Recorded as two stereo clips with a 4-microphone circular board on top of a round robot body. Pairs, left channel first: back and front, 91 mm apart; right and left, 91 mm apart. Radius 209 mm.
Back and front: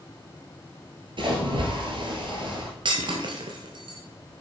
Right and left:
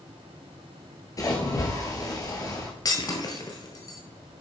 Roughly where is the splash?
Ahead right.